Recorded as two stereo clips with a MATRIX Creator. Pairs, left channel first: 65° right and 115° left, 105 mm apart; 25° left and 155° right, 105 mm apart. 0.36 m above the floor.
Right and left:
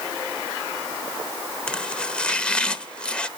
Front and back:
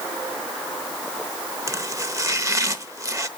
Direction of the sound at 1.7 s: 140° right.